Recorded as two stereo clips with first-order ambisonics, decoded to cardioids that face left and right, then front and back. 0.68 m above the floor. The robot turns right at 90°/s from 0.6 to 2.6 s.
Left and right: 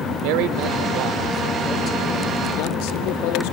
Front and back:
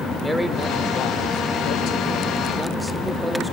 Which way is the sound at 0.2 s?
90° right.